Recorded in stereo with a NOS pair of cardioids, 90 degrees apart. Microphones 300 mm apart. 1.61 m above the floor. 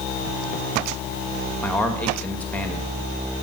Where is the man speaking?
5° left, 1.9 m.